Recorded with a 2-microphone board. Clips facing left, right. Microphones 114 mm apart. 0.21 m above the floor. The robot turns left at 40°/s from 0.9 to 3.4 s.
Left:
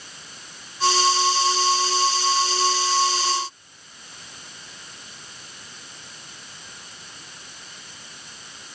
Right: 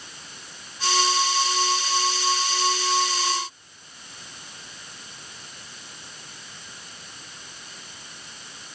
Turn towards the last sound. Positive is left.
No sound to turn to.